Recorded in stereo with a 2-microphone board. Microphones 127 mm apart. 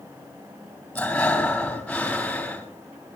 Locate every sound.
0.9 s breathing: 10° left (ahead or behind), 3.5 m